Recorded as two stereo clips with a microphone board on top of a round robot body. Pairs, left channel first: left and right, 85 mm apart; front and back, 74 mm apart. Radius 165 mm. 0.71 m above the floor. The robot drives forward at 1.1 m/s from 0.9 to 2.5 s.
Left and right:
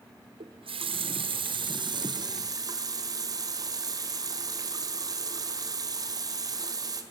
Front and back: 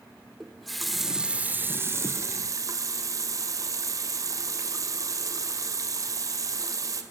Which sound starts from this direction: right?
A running tap, at 0.4 s.